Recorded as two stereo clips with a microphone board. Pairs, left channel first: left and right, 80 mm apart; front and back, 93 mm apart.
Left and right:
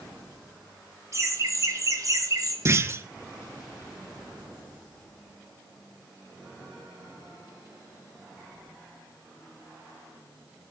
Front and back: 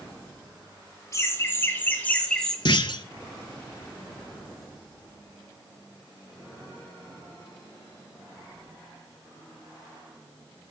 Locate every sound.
1.1 s laughter: 50° right, 2.0 m; by 2.5 s 80° right, 1.7 m
2.6 s a clunk: 35° right, 0.5 m